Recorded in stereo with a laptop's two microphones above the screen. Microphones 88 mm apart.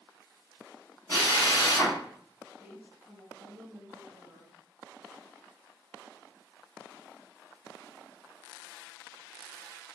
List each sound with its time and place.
1.1 s a drill: 35° left (ahead or behind), 1.3 m
2.6 s a woman speaking: 20° right (ahead or behind), 0.6 m